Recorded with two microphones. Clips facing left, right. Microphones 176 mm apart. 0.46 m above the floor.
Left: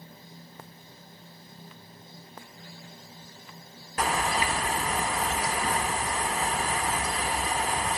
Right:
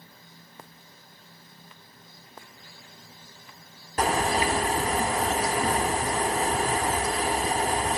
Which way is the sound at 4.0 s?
40° right (ahead or behind).